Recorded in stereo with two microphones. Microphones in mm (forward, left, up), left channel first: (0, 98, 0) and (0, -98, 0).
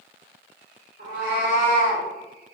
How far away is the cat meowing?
About 1.7 m.